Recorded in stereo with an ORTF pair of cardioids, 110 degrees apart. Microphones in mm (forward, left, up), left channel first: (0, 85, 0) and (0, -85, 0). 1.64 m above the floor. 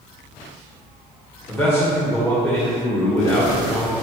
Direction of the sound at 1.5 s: 15° left.